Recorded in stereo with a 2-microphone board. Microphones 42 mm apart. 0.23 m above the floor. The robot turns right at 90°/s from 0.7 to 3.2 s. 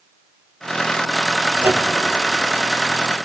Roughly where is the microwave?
Right.